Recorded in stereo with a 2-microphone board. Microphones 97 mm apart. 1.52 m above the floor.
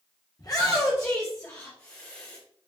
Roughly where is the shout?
Left.